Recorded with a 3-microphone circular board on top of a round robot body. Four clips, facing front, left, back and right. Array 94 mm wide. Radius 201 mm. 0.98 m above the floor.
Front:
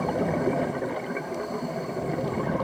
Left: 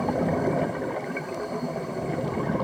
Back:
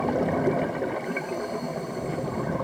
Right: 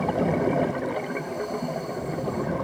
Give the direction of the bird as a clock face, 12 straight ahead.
No bird in this recording.